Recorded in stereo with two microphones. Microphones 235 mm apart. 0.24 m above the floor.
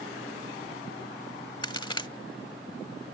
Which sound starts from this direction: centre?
A crack, at 1.6 s.